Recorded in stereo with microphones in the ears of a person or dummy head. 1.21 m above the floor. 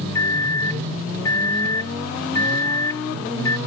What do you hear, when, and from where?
0.1 s a microwave: 15° left (ahead or behind)